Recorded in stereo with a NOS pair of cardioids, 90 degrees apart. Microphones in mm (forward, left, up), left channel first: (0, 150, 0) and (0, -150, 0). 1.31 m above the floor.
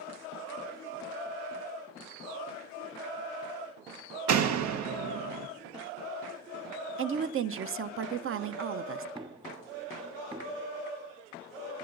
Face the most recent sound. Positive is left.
turn(degrees=-15)